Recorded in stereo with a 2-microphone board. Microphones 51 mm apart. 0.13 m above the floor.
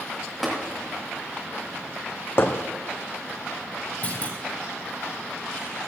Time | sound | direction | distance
0.4 | tapping | centre (ahead or behind) | 7.5 m
2.4 | hammering | 50° left (ahead or behind) | 2.0 m
4.0 | a clunk | 30° left (ahead or behind) | 5.5 m